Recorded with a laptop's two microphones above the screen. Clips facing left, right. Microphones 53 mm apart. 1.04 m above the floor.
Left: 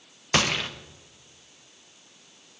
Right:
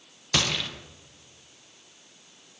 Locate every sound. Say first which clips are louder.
0.3 s a gunshot: left 3 dB; 25° left (ahead or behind), 0.8 m